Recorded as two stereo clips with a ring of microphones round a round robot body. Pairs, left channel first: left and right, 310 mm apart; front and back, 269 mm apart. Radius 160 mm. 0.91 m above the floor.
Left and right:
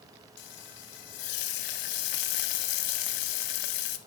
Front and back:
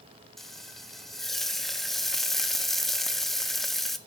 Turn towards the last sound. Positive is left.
turn(degrees=90)